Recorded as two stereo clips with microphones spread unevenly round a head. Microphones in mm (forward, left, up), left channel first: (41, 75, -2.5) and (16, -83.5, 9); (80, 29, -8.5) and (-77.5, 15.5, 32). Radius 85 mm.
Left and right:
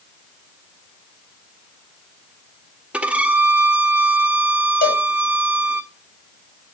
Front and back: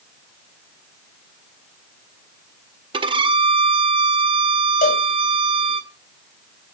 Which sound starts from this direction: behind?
A violin, at 2.9 s.